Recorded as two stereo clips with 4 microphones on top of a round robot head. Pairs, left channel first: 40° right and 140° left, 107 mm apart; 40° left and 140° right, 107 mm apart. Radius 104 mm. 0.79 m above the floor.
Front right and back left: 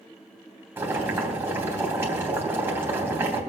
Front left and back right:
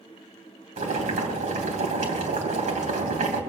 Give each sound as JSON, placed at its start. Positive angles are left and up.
{"t": 0.8, "sound": "boiling", "azimuth_deg": -150, "distance_m": 3.0}